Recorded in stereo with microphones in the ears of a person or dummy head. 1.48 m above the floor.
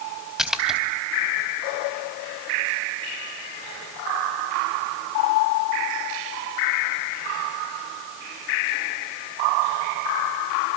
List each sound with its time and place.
0.4 s a splash: 5° right (ahead or behind), 3 m